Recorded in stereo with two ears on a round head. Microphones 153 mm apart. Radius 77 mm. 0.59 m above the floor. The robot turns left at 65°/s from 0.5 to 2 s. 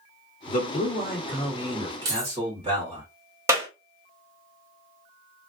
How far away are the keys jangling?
About 1.1 m.